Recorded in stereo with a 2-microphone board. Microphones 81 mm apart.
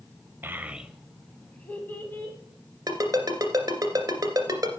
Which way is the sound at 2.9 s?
45° right (ahead or behind).